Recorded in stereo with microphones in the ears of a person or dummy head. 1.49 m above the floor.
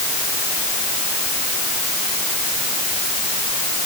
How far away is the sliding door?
No sliding door in this recording.